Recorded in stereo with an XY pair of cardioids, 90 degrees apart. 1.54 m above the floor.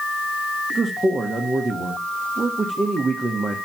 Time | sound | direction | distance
0.7 | a man speaking | 35° right | 1.5 m